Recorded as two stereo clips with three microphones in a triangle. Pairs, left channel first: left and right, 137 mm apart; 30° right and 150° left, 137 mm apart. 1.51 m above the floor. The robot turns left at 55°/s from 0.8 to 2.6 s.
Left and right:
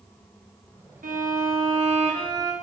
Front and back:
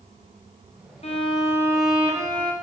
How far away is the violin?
About 0.5 m.